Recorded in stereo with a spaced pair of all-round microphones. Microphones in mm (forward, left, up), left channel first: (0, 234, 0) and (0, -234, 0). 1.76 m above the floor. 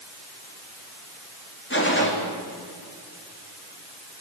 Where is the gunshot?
25° left (ahead or behind), 3.5 m.